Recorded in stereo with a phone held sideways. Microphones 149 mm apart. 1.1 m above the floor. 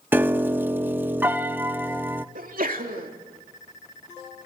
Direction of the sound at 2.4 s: 70° right (ahead or behind).